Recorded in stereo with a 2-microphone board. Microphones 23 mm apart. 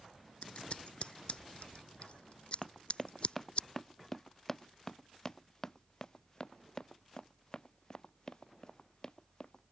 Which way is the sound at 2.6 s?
Centre (ahead or behind).